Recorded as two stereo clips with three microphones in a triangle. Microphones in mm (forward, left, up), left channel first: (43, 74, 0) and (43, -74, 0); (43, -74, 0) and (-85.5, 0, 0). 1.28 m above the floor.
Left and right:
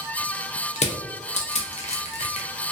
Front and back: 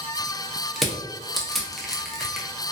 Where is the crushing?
60° left, 0.6 m.